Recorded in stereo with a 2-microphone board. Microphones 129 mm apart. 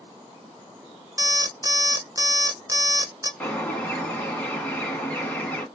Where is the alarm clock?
25° right (ahead or behind), 0.7 m.